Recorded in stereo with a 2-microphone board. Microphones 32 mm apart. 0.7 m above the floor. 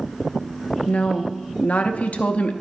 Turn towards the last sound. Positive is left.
turn(degrees=45)  # may be behind; listen again after turning